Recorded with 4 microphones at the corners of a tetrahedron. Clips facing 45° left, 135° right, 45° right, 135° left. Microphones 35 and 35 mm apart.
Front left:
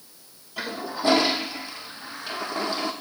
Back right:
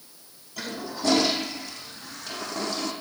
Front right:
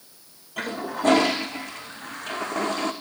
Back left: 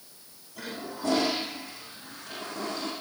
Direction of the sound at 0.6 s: 20° right.